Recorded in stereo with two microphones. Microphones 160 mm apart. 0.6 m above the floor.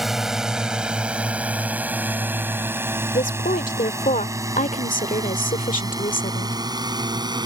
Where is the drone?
Centre (ahead or behind); by 7.5 s 25° right (ahead or behind).